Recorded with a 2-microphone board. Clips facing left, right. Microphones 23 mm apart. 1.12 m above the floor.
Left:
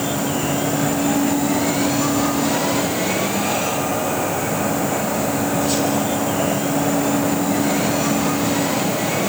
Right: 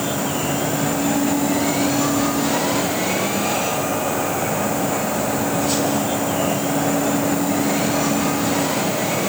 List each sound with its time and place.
Only background noise.